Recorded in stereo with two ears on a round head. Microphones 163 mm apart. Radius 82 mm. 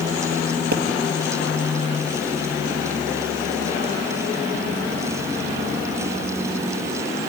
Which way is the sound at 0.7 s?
55° right (ahead or behind).